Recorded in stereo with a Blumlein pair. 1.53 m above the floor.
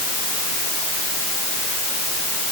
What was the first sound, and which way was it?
Only background noise.